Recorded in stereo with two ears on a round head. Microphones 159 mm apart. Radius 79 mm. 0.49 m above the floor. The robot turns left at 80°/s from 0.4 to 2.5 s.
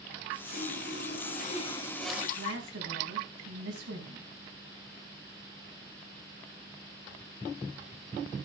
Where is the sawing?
130° left, 1.8 m; by 2.3 s 10° right, 1.8 m.